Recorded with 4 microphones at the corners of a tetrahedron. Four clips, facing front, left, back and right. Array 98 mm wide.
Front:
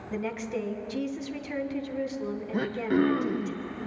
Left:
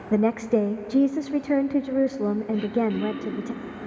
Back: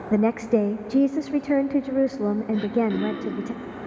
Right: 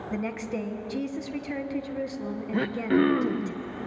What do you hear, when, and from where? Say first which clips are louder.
0.1 s a woman speaking: left 11 dB, back 12 dB; 140° left, 0.9 m
2.5 s throat clearing: even, front 2 dB; 65° right, 1.0 m